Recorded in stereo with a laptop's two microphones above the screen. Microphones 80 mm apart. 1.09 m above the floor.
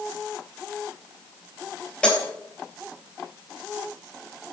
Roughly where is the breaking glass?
Centre.